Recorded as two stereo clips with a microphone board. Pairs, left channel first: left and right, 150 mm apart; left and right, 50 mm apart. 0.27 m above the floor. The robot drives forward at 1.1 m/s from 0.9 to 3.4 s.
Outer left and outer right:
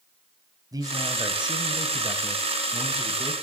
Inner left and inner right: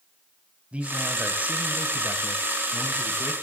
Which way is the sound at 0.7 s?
25° right (ahead or behind).